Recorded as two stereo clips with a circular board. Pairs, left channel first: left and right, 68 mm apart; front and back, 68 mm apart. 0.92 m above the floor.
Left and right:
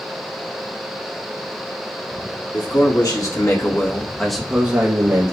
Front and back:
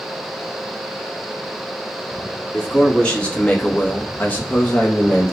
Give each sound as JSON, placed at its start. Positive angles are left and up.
{"t": 2.5, "sound": "a man speaking", "azimuth_deg": 75, "distance_m": 1.6}